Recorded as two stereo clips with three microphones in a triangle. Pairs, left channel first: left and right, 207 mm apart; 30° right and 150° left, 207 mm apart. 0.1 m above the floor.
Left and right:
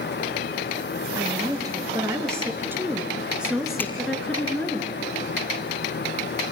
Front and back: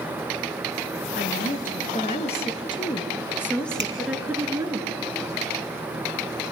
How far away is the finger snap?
About 1.9 m.